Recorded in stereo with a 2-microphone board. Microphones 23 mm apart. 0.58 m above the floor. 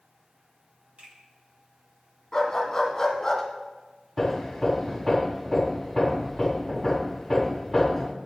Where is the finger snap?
65° right (ahead or behind), 6.5 m.